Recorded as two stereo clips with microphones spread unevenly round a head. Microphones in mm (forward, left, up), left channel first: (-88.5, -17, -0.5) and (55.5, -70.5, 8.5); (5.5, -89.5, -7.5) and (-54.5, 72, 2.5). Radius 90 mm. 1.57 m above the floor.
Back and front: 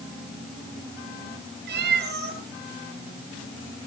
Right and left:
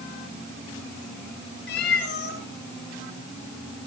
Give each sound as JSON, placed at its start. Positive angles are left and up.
{"t": 1.7, "sound": "a cat meowing", "azimuth_deg": -30, "distance_m": 9.5}